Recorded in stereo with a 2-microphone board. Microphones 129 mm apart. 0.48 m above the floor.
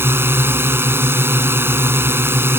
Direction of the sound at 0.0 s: 15° right (ahead or behind).